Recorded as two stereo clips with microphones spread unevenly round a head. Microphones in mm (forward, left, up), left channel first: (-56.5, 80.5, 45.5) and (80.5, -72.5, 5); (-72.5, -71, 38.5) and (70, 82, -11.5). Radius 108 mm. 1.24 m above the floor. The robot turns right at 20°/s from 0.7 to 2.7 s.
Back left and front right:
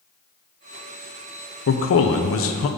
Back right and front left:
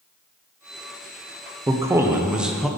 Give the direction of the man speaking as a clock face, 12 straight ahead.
8 o'clock.